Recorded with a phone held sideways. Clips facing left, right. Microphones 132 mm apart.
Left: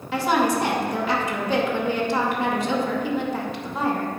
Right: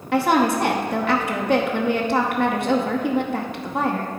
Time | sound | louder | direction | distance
0.1 | a woman speaking | right 3 dB | 60° right (ahead or behind) | 0.8 m